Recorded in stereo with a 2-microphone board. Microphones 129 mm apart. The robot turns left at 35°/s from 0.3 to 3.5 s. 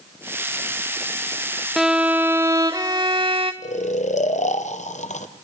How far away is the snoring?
About 0.8 m.